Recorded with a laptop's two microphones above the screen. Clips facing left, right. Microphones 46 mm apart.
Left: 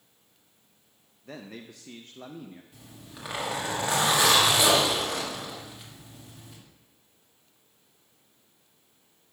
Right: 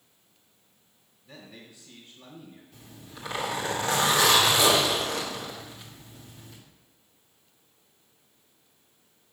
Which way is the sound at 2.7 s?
10° left (ahead or behind).